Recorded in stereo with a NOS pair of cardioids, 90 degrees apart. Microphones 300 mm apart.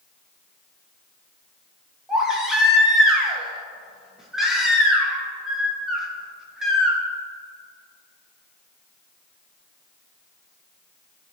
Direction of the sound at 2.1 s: Straight ahead.